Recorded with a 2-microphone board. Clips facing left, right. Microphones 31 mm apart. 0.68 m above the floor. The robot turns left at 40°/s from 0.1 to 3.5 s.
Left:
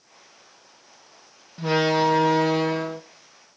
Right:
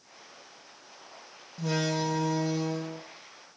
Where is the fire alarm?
I don't hear a fire alarm.